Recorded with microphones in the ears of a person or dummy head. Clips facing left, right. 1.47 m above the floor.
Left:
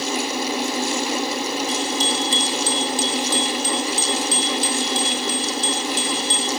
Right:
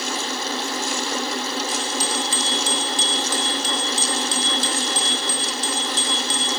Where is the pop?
I don't hear a pop.